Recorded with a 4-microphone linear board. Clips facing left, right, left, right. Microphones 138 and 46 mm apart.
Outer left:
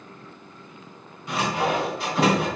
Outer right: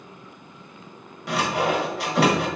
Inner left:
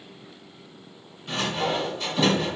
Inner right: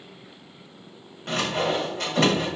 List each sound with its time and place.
1.3 s sawing: 75° right (ahead or behind), 1.0 m